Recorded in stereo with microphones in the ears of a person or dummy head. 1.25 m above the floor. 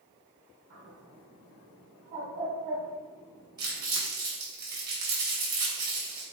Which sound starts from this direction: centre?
Crumpling, at 3.6 s.